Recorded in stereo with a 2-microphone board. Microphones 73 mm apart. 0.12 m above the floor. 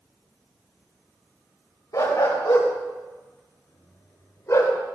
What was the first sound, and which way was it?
A dog barking, 55° left (ahead or behind).